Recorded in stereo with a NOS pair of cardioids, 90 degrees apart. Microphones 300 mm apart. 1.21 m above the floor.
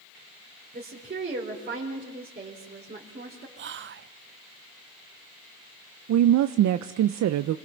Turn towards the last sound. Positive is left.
turn(degrees=-70)